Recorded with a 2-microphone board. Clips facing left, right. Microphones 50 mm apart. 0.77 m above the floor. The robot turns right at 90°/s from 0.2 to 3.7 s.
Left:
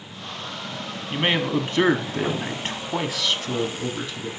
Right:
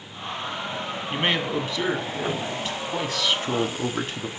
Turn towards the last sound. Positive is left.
turn(degrees=-130)